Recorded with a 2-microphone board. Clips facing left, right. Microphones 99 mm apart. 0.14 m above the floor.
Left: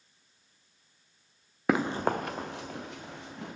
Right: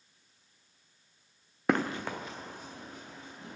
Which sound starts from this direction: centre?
Running footsteps, at 1.7 s.